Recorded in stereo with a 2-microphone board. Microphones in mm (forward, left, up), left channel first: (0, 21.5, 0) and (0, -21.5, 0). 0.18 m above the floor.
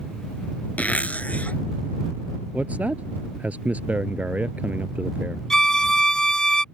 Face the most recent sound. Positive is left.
turn(degrees=15)  # may be behind; listen again after turning